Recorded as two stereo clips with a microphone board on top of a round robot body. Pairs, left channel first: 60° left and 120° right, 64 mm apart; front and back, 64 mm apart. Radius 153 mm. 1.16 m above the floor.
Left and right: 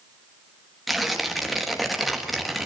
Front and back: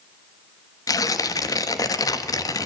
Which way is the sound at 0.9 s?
30° right.